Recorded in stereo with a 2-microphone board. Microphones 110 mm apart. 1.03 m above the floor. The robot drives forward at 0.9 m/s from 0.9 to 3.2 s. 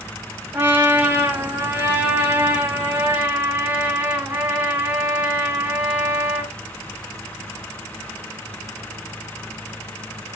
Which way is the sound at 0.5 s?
20° right (ahead or behind).